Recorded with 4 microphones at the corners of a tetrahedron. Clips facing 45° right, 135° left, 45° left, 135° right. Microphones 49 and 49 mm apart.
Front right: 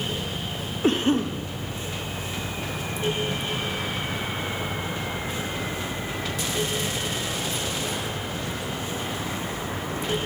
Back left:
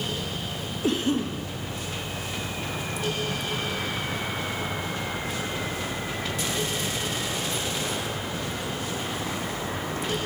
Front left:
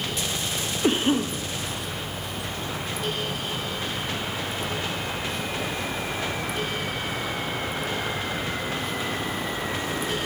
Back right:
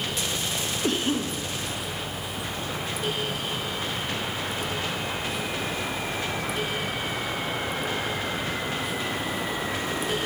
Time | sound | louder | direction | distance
0.8 | a cough | front right 3 dB, front left 5 dB | 15° right | 0.6 m